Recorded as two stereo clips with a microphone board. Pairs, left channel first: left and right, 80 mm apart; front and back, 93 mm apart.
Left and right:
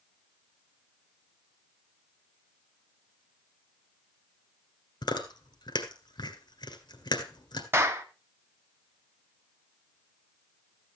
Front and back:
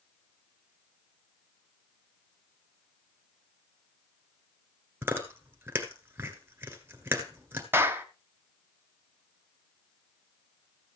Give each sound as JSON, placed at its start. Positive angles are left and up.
{"t": 5.0, "sound": "chewing", "azimuth_deg": 110, "distance_m": 1.7}
{"t": 7.7, "sound": "a clap", "azimuth_deg": -130, "distance_m": 1.3}